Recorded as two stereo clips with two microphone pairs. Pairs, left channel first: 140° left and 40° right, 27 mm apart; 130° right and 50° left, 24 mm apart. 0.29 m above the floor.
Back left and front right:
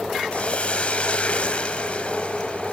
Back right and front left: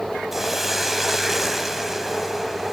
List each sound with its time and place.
0.3 s a hiss: 130° left, 1.4 m